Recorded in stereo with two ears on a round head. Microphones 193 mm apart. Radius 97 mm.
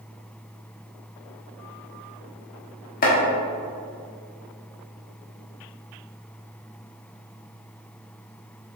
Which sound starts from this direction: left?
Chopping, at 3.0 s.